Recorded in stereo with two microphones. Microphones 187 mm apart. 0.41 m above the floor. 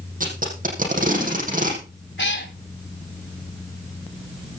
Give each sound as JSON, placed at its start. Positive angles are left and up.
{"t": 0.2, "sound": "tape being pulled", "side_deg": -45, "distance_m": 6.0}
{"t": 2.2, "sound": "a cat meowing", "side_deg": 75, "distance_m": 1.5}